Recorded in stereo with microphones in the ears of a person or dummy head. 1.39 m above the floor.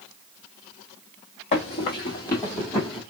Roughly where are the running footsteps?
Left.